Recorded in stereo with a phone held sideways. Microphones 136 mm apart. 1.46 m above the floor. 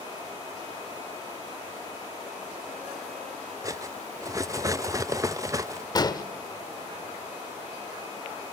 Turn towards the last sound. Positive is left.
turn(degrees=30)  # may be behind; listen again after turning